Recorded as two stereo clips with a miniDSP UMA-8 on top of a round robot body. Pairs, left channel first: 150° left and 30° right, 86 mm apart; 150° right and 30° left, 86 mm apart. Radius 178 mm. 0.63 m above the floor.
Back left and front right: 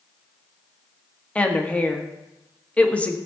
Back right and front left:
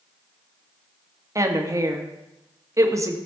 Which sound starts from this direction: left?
A woman speaking, at 1.4 s.